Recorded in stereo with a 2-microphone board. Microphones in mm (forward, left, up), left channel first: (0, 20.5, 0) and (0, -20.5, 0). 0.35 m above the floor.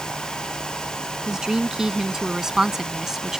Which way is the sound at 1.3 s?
15° right (ahead or behind).